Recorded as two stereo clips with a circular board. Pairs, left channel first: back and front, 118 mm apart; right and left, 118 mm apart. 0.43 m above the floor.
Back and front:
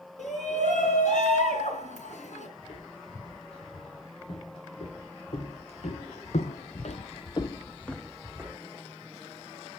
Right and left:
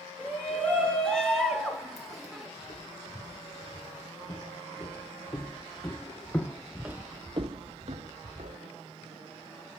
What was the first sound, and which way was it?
A shout, 170° right.